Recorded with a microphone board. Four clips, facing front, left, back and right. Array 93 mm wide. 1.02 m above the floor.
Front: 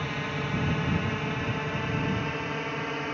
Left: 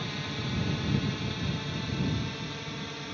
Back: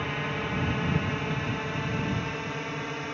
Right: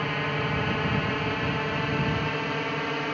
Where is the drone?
95° right; by 3.1 s 75° right.